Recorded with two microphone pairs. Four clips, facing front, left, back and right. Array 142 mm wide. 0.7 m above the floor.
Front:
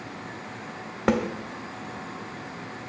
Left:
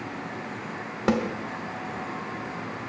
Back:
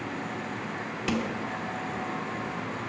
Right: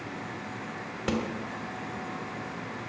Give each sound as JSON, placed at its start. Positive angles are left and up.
{"t": 1.1, "sound": "a snare drum", "azimuth_deg": 30, "distance_m": 0.9}